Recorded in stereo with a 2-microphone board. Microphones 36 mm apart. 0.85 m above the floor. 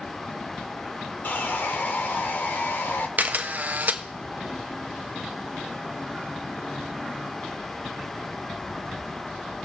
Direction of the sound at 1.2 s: 60° left (ahead or behind).